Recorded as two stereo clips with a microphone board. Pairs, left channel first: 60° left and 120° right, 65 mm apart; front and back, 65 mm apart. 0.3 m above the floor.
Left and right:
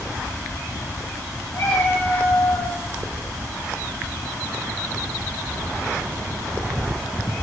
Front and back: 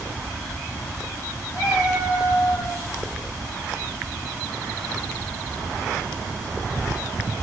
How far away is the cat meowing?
About 3.5 m.